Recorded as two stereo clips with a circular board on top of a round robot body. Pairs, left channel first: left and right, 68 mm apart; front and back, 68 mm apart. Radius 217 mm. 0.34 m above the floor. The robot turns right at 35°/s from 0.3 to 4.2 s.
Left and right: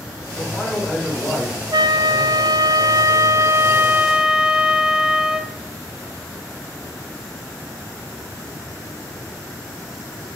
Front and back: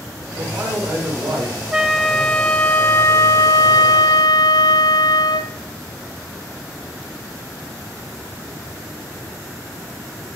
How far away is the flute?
About 0.7 m.